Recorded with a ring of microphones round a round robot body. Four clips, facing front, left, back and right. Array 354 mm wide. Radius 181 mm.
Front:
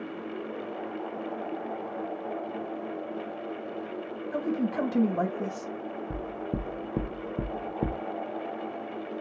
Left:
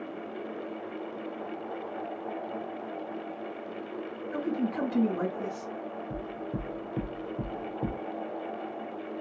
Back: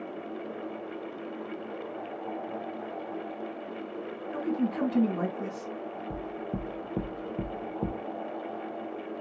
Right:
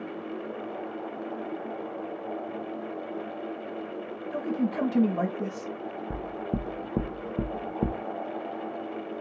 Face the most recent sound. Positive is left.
turn(degrees=-70)